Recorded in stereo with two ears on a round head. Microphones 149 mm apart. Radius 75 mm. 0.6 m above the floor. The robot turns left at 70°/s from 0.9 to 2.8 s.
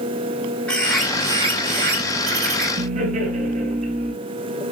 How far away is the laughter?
About 6.5 m.